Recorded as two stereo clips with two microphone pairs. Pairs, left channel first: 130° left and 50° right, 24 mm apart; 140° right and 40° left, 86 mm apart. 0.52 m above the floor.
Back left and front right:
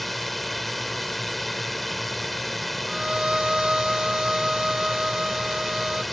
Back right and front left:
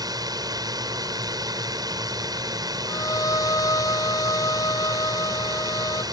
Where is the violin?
100° right.